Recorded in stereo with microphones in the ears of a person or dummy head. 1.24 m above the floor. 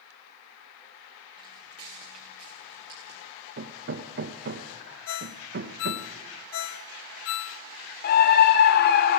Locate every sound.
1.4 s footsteps: 30° right (ahead or behind), 8 m; by 3.2 s 40° right (ahead or behind), 6.5 m
3.6 s hammering: 60° right (ahead or behind), 1.2 m
5.1 s a ringtone: 75° left (ahead or behind), 0.7 m
8.0 s a scream: 45° left (ahead or behind), 0.7 m